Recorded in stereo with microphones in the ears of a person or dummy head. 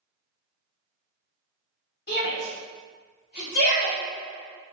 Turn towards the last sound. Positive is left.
turn(degrees=55)  # may be behind; listen again after turning